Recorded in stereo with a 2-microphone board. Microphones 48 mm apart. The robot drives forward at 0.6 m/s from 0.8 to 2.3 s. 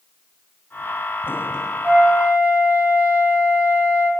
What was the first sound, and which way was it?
A flute, 35° right (ahead or behind).